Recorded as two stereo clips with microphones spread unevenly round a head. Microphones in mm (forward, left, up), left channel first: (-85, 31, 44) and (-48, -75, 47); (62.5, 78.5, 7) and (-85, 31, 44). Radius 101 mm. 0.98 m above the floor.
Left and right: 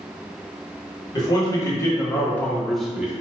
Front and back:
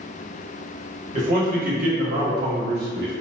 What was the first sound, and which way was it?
A man speaking, 160° left.